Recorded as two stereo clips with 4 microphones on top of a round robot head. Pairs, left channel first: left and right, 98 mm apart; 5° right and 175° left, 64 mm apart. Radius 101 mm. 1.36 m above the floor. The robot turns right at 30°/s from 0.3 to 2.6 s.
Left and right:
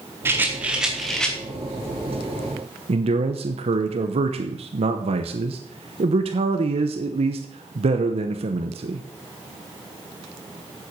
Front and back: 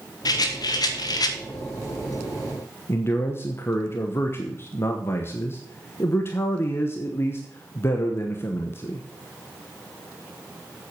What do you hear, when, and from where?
0.2 s a rattle: 20° right, 1.5 m; by 1.4 s 10° left, 1.5 m
2.9 s a man speaking: 65° right, 1.0 m